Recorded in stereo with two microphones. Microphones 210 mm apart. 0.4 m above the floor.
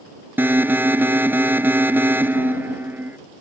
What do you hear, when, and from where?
0.4 s an alarm: 10° right (ahead or behind)